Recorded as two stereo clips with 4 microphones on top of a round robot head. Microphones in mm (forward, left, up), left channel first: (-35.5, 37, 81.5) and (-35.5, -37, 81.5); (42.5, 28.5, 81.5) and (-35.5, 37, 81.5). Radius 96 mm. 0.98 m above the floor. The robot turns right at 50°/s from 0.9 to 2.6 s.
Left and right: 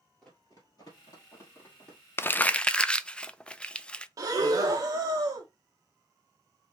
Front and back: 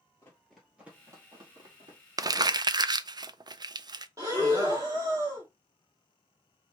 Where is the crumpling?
145° left, 0.5 m; by 4.1 s 165° left, 0.5 m.